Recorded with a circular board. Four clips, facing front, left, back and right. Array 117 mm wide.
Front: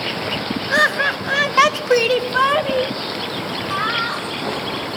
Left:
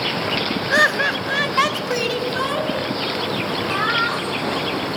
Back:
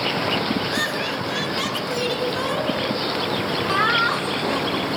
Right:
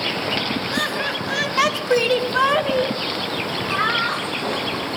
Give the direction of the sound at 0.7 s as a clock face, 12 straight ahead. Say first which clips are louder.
Left 6 dB, front 6 dB; 10 o'clock.